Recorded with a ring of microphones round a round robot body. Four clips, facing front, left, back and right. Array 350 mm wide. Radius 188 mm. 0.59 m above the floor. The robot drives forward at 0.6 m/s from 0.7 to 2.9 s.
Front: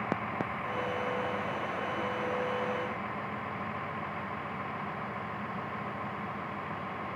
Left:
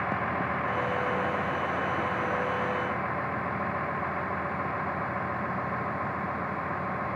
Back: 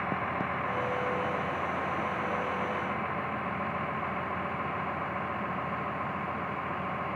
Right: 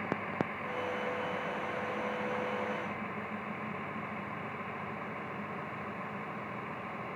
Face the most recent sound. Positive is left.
turn(degrees=120)